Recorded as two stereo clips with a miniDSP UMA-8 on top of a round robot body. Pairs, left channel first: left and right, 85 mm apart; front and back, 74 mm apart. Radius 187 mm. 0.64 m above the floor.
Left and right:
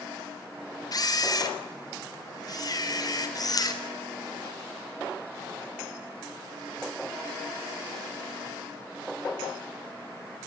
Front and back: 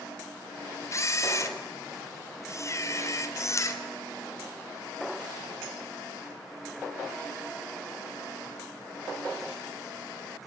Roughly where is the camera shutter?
Ahead left.